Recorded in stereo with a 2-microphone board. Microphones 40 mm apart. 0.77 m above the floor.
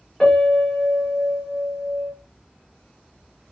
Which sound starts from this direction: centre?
A piano, at 0.2 s.